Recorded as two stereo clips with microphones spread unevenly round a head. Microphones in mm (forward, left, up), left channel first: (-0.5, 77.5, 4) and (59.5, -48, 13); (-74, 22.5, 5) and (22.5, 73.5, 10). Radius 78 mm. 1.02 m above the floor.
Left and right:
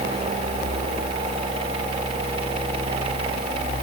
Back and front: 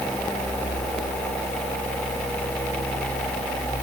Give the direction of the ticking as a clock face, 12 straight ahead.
I don't hear ticking.